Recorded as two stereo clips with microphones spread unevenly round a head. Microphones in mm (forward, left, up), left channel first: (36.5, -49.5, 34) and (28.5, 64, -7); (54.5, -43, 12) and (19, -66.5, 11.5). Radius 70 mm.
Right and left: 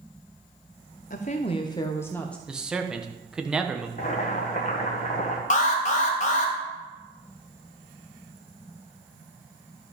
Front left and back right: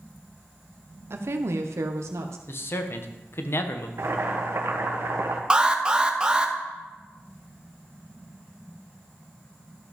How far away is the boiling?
About 1.7 m.